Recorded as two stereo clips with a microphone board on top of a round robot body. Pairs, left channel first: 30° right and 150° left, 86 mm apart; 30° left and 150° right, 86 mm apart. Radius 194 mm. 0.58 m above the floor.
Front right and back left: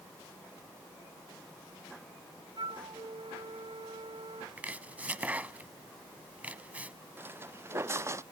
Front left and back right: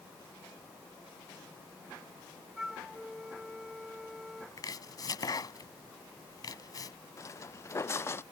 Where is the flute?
125° left.